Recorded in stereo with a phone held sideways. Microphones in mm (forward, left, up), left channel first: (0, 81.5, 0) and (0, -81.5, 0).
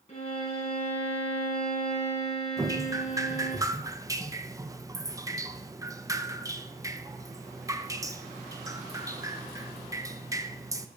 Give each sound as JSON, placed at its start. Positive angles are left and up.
{"t": 0.1, "sound": "a violin", "side_deg": 40, "distance_m": 5.5}
{"t": 2.6, "sound": "dripping", "side_deg": -20, "distance_m": 0.6}